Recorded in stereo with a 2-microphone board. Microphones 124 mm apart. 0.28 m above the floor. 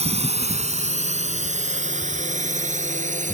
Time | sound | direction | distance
0.0 | a drone | 55° right (ahead or behind) | ?